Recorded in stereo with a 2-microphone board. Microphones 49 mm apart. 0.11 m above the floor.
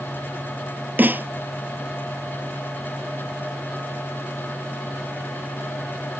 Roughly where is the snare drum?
Right.